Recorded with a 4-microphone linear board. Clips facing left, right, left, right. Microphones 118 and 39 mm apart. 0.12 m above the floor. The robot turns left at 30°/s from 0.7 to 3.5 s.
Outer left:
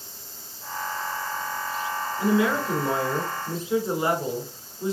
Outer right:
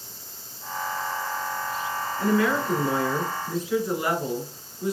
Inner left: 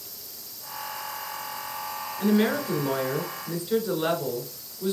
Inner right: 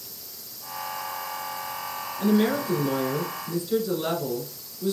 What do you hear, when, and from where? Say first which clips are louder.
2.2 s a woman speaking: even, inner right 1 dB; 15° left (ahead or behind), 1.4 m; by 4.9 s 25° left (ahead or behind), 1.4 m